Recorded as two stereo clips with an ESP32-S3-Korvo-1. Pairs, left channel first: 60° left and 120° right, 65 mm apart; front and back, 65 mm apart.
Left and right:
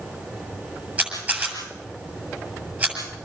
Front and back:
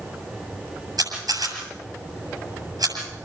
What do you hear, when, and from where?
1.0 s a camera shutter: 170° left, 7.5 m